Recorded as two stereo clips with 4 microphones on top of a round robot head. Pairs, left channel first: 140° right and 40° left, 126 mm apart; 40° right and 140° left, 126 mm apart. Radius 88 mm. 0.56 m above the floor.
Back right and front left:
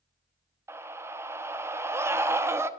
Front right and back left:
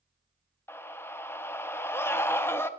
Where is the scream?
Straight ahead, 0.8 m.